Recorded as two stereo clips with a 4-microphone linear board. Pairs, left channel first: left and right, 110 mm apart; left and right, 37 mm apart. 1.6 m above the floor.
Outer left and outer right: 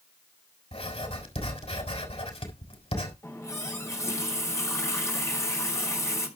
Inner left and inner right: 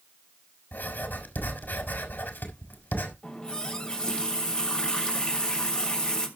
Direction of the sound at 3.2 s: 25° left (ahead or behind).